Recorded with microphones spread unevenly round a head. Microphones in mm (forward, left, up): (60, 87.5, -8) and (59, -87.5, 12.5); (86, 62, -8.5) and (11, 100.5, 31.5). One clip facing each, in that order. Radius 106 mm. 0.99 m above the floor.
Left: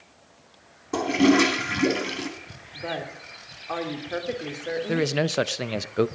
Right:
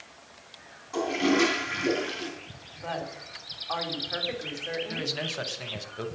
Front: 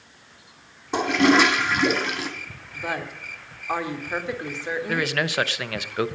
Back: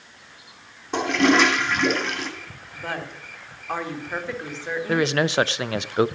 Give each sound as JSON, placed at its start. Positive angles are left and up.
{"t": 0.9, "sound": "a toilet flushing", "azimuth_deg": 65, "distance_m": 2.5}
{"t": 2.7, "sound": "a woman speaking", "azimuth_deg": 45, "distance_m": 3.0}
{"t": 4.9, "sound": "a man speaking", "azimuth_deg": 80, "distance_m": 0.7}